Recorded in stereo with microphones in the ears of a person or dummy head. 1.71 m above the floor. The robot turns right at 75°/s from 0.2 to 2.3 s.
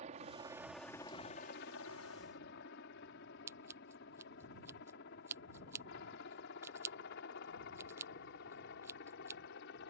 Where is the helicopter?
35° right (ahead or behind); by 9.9 s 60° left (ahead or behind).